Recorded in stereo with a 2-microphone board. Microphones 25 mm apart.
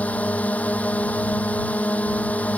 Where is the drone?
70° left (ahead or behind).